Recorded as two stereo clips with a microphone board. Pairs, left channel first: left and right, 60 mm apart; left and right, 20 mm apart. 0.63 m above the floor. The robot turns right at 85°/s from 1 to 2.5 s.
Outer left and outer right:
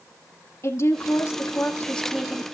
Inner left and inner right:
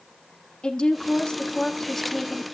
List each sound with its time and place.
0.6 s a woman speaking: 75° left, 1.6 m; by 2.4 s 160° right, 1.6 m